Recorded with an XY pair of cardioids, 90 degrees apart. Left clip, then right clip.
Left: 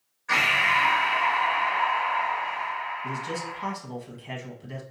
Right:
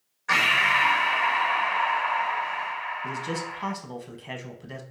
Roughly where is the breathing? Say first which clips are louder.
Right 1 dB; ahead right.